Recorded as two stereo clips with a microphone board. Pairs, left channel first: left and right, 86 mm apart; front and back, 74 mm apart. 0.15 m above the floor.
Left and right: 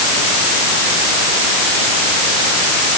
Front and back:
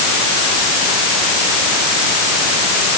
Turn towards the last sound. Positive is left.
No sound to turn to.